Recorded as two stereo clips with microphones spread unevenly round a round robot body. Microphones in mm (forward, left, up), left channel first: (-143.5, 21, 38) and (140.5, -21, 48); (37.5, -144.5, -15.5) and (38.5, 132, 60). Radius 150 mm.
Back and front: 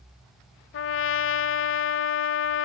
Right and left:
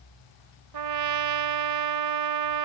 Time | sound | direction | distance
0.7 | a trumpet | 125° left | ?